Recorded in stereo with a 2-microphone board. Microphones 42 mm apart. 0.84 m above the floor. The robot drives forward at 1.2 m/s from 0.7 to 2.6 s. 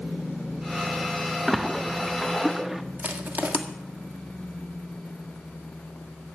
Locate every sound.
1.5 s a splash: 5° right (ahead or behind), 0.9 m
3.0 s crushing: 45° right (ahead or behind), 1.7 m